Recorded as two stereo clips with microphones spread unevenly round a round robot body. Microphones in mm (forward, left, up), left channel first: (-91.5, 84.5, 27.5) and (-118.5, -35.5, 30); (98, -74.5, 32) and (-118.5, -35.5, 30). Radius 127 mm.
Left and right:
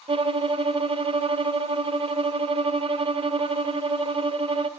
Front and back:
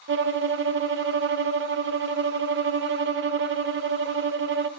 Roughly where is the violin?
Behind right.